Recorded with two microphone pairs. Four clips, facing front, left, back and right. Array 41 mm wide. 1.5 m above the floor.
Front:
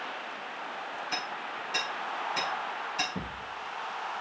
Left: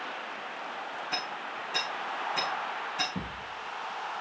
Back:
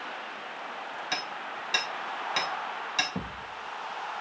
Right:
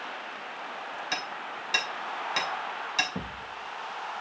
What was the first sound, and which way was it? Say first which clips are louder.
Hammering: right 2 dB, back 2 dB; 135° right.